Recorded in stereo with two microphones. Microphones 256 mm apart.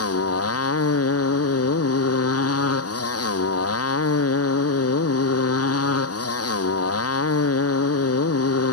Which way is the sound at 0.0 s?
65° left (ahead or behind).